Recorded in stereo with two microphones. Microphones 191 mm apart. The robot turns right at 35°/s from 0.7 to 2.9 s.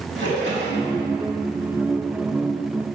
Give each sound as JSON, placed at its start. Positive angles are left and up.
{"t": 0.1, "sound": "a splash", "side_deg": -85, "distance_m": 2.0}